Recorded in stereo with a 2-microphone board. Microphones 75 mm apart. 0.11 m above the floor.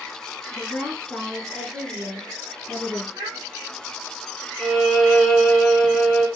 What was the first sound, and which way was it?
A woman speaking, 25° left (ahead or behind).